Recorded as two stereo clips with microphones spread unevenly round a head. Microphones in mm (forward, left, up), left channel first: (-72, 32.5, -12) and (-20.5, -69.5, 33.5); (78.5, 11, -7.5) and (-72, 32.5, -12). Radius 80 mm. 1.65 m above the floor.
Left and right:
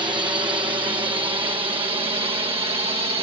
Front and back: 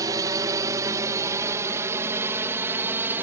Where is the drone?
120° right; by 3.2 s 110° right.